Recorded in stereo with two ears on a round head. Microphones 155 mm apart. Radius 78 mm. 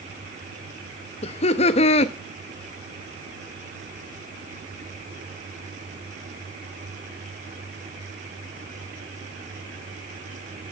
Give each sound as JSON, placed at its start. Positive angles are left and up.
{"t": 1.2, "sound": "laughter", "side_deg": 40, "distance_m": 0.6}